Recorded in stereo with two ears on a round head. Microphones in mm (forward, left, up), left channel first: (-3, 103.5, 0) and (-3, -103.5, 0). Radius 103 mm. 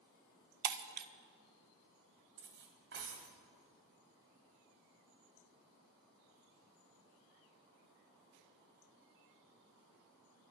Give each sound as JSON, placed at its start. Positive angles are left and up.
{"t": 0.6, "sound": "breaking glass", "side_deg": -45, "distance_m": 0.6}
{"t": 2.4, "sound": "cutlery clinking", "side_deg": -55, "distance_m": 1.5}